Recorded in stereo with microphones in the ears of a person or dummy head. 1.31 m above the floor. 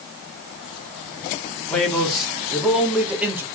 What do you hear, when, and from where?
1.7 s a man speaking: centre (ahead or behind), 3 m; by 3.4 s 10° right (ahead or behind), 2.5 m